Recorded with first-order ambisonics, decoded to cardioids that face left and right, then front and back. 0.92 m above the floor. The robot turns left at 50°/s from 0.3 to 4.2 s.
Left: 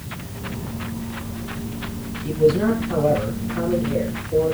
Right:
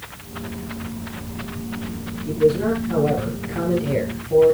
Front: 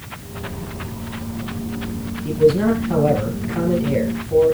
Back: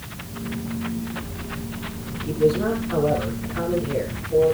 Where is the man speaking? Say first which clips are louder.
Even, front 5 dB; 35° left, 8 m; by 4.5 s 65° right, 8 m.